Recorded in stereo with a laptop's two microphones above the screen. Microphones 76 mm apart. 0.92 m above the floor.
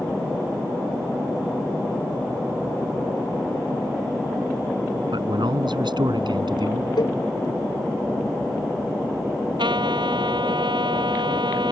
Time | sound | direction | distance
5.1 | a man speaking | 85° right | ?
7.0 | a cowbell | 80° left | ?
9.6 | a trumpet | 90° right | ?